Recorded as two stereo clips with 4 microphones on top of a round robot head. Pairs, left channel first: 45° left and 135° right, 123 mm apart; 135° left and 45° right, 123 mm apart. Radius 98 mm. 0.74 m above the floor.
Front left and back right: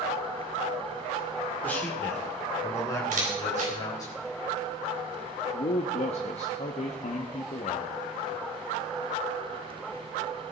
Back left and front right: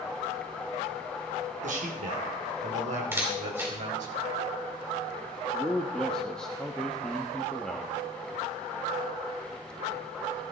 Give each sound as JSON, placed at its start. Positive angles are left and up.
{"t": 1.6, "sound": "a man speaking", "azimuth_deg": -35, "distance_m": 2.5}
{"t": 3.1, "sound": "a camera shutter", "azimuth_deg": -115, "distance_m": 4.0}
{"t": 5.5, "sound": "a man speaking", "azimuth_deg": 55, "distance_m": 1.2}